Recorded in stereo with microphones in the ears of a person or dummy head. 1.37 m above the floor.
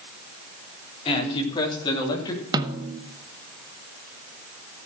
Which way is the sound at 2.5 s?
15° right (ahead or behind).